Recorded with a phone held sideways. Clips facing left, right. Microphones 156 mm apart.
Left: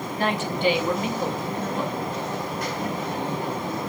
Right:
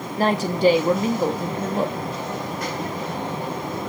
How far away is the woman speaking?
About 0.8 m.